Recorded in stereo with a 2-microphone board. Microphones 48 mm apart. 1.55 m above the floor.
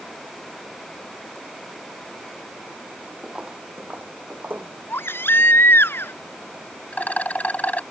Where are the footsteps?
15° right (ahead or behind); by 4.7 s 50° right (ahead or behind).